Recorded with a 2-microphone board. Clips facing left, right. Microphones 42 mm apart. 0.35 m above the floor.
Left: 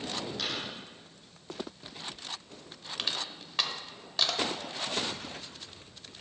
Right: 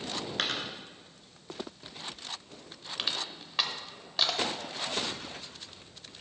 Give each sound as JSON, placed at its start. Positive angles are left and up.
{"t": 0.4, "sound": "a dropped coin", "side_deg": -55, "distance_m": 1.6}
{"t": 3.0, "sound": "crushing", "side_deg": -5, "distance_m": 0.8}